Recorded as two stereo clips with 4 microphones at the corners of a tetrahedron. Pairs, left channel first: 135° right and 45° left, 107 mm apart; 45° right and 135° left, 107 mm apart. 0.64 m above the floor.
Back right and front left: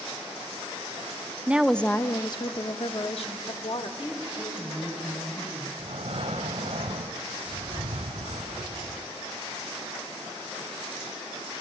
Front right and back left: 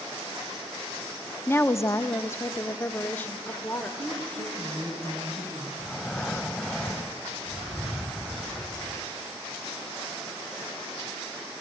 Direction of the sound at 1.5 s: 15° right.